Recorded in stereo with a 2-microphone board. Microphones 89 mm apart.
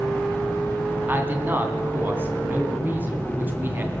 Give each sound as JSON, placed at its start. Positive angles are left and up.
{"t": 1.1, "sound": "a man speaking", "side_deg": -20, "distance_m": 2.5}